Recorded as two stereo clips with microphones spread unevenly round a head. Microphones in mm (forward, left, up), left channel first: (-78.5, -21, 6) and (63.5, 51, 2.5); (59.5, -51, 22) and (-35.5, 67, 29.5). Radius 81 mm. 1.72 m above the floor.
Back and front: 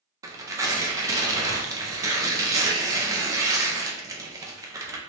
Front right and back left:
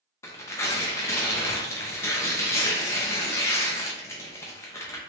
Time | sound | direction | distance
0.2 | tearing paper | straight ahead | 0.5 m